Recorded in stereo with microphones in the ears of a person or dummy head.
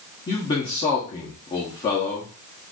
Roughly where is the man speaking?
Left.